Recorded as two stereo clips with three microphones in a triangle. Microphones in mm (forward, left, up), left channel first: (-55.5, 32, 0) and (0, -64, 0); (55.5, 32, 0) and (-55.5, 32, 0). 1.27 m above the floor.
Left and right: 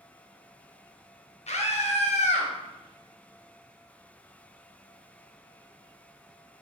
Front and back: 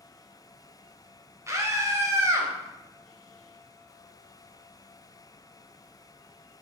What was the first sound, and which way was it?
A scream, 115° left.